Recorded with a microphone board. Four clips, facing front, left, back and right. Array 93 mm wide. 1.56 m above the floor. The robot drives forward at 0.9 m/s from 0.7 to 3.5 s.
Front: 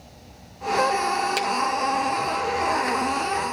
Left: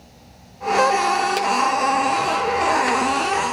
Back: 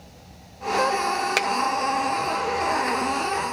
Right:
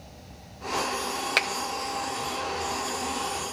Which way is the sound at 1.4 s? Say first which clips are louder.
Left 7 dB, back 1 dB; 130° right.